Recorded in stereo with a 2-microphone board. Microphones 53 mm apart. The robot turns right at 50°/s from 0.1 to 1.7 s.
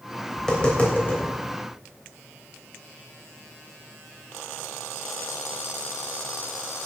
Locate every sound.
0.4 s tapping: 5° left (ahead or behind), 3 m; by 1.2 s 45° left (ahead or behind), 3 m